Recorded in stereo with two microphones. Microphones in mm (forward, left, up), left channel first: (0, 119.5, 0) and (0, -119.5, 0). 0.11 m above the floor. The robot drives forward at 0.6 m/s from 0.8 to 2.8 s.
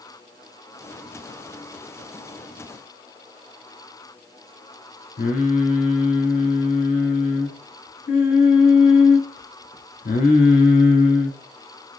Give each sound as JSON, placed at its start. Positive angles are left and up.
{"t": 5.2, "sound": "singing", "side_deg": 40, "distance_m": 0.9}